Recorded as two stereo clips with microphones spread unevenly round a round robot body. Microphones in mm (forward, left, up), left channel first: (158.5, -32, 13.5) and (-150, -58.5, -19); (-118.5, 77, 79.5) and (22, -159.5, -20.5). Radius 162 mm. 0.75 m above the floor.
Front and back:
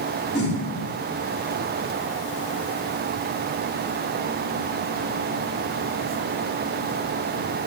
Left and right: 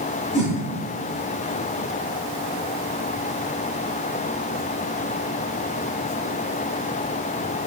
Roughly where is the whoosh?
Left.